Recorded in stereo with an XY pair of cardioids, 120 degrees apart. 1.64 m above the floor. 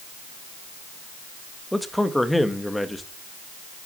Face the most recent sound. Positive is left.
turn(degrees=5)